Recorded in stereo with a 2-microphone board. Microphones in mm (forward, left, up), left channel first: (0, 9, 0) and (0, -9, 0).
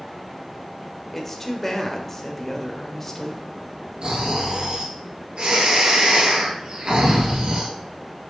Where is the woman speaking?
10° left (ahead or behind), 1.3 m.